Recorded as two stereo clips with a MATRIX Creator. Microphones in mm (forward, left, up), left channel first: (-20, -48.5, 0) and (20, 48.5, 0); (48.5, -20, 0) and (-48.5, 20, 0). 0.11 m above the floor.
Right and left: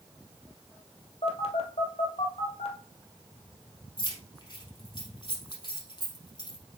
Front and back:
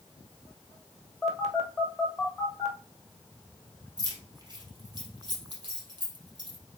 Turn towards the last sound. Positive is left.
turn(degrees=-160)